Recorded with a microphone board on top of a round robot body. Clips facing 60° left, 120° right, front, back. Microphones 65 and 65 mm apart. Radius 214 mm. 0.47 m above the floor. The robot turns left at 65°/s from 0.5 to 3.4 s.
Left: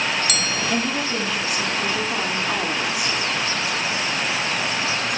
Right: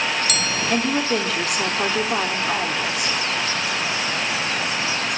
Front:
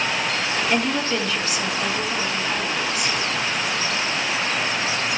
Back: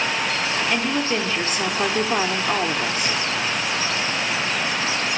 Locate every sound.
0.7 s a woman speaking: 85° right, 2.5 m; by 3.1 s 120° left, 2.5 m